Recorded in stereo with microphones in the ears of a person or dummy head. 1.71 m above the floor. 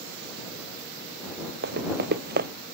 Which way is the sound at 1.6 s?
65° right (ahead or behind).